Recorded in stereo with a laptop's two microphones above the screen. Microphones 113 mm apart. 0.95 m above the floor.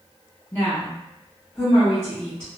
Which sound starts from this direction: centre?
A woman speaking, at 0.5 s.